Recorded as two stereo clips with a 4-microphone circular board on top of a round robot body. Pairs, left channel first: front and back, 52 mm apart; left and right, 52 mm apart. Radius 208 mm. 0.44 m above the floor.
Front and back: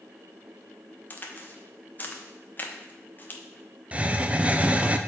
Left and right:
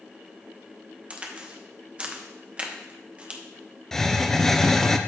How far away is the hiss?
About 0.8 m.